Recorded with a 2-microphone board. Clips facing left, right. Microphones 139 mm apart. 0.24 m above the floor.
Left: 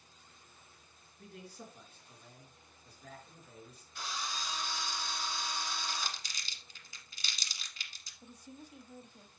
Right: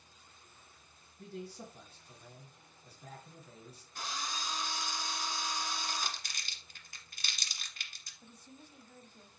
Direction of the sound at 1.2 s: 35° right (ahead or behind).